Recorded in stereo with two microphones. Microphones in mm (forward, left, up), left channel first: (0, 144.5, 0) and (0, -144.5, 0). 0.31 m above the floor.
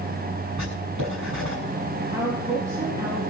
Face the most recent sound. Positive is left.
turn(degrees=-10)  # may be behind; listen again after turning